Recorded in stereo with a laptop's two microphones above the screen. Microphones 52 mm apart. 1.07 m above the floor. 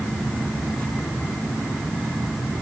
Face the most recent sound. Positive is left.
No sound to turn to.